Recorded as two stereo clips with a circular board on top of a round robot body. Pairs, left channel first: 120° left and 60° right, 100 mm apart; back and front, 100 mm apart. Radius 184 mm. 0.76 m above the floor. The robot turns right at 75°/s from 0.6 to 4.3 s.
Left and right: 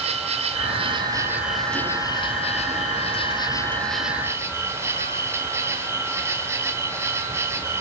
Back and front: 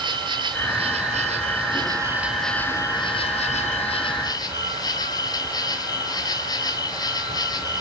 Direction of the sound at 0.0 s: 45° right.